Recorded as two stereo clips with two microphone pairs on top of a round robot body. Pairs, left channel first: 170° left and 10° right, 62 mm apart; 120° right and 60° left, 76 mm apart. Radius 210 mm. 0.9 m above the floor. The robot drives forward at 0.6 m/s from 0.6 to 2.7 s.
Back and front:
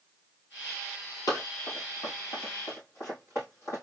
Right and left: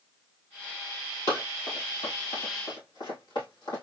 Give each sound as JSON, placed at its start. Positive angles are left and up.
{"t": 1.3, "sound": "running footsteps", "azimuth_deg": -165, "distance_m": 1.7}